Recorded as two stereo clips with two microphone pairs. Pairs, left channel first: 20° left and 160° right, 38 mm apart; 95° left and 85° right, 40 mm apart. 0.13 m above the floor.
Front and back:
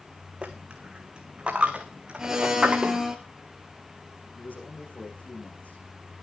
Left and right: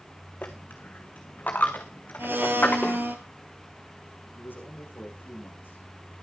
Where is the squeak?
I don't hear a squeak.